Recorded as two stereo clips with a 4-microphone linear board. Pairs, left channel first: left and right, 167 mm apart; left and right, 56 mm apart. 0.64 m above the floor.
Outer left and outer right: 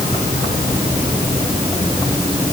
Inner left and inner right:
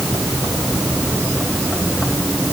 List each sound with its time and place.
Only background noise.